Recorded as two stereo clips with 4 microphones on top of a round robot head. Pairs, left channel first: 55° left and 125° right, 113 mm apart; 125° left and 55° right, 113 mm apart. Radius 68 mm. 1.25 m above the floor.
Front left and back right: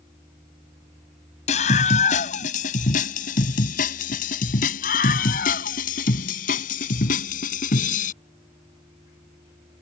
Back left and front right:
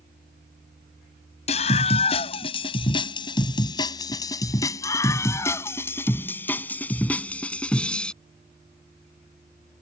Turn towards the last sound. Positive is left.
turn(degrees=40)